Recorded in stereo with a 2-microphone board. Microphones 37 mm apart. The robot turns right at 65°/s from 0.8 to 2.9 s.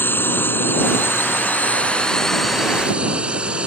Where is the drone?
70° left; by 3.7 s 150° right.